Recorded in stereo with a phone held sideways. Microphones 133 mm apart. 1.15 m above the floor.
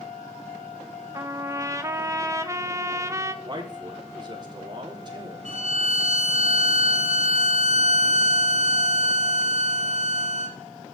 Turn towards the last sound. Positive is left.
turn(degrees=-60)  # may be behind; listen again after turning